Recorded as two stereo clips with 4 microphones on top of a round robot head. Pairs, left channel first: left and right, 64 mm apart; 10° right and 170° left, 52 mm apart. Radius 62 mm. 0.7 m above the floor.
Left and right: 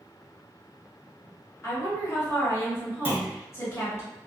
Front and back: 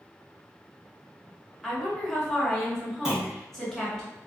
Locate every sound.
1.6 s a woman speaking: 70° left, 1.6 m
3.0 s a clunk: 120° right, 0.9 m